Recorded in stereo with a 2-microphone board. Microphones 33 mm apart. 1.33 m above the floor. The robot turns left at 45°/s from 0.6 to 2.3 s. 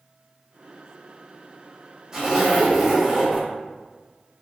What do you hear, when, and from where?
2.1 s a zipper: 20° right (ahead or behind), 1.0 m; by 3.5 s 10° right (ahead or behind), 1.0 m